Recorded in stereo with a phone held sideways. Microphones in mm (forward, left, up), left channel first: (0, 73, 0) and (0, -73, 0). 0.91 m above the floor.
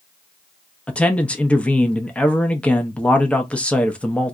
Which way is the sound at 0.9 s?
10° left (ahead or behind).